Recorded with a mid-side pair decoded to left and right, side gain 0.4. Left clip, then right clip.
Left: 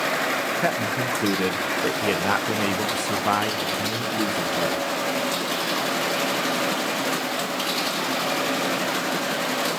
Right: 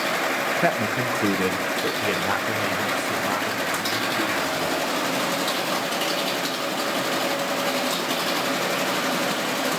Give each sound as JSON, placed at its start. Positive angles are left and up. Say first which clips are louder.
{"t": 0.6, "sound": "a man speaking", "louder": "right 1 dB", "azimuth_deg": -15, "distance_m": 1.6}